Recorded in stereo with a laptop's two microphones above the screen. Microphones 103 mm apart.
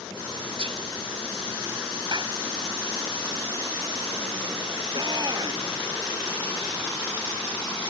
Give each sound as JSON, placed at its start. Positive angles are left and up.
{"t": 0.6, "sound": "whispering", "side_deg": -60}
{"t": 2.1, "sound": "a clap", "side_deg": -45}
{"t": 4.9, "sound": "a shout", "side_deg": -40}